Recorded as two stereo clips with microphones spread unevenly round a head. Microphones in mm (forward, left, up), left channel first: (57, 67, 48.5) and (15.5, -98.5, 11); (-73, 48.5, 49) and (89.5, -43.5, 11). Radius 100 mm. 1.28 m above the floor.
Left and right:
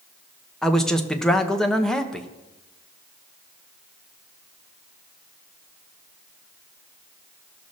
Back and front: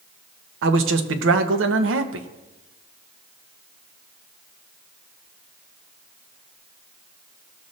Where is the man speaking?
10° right, 1.1 m.